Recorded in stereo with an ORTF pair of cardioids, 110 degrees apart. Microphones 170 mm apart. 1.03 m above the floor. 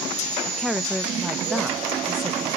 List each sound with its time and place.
0.5 s a woman speaking: straight ahead, 0.7 m